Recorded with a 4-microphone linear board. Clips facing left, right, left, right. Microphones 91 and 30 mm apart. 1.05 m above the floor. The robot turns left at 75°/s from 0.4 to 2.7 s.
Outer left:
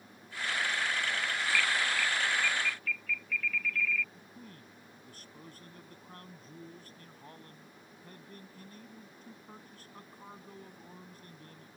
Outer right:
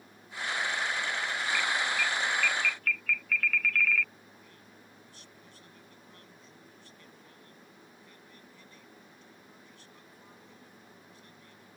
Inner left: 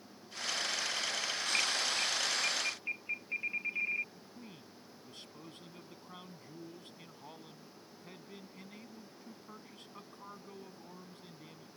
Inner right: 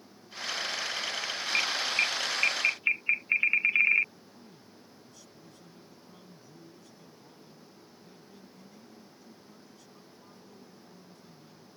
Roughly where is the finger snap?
No finger snap in this recording.